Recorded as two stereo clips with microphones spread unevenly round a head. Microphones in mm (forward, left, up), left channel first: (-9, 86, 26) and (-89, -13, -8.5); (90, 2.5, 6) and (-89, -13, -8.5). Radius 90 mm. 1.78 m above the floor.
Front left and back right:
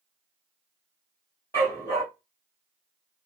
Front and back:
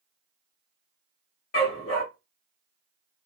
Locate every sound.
1.5 s a dog barking: 10° right, 3 m